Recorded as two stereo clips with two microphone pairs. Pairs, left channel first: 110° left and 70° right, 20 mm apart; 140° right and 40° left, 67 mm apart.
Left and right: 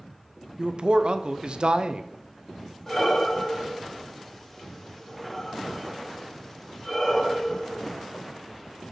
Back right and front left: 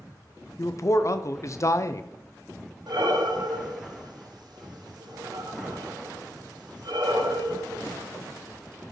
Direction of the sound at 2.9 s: 40° left.